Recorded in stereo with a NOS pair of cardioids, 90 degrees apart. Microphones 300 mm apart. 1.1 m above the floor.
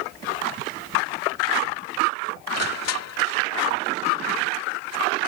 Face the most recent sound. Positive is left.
turn(degrees=60)